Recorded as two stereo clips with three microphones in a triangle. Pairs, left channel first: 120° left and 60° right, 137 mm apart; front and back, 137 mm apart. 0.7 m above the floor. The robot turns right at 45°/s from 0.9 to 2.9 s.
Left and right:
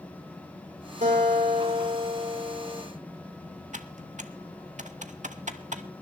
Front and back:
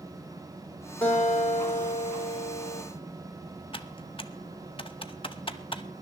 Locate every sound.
1.0 s a guitar: 80° right, 6 m; by 2.8 s 5° left, 6 m
3.7 s typing on a keyboard: 45° right, 0.9 m